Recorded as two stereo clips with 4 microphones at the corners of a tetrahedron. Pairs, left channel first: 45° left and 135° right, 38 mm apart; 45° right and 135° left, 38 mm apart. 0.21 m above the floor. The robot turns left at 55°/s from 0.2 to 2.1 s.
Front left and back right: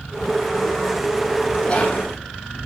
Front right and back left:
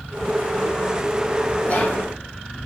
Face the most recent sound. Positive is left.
turn(degrees=-30)